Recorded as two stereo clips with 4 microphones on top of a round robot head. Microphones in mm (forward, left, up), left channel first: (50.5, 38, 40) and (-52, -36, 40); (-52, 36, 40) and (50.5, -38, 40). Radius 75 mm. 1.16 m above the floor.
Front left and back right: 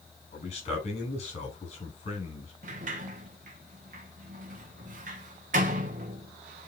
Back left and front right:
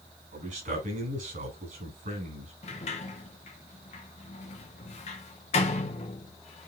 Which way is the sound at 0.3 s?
5° right.